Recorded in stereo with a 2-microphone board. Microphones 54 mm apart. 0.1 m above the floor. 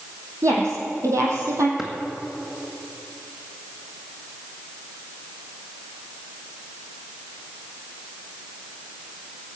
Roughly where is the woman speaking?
Right.